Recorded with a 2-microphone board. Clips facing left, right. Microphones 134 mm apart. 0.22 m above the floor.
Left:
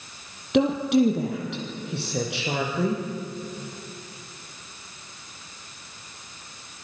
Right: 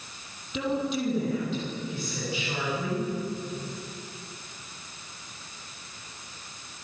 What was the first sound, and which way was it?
A woman speaking, 65° left (ahead or behind).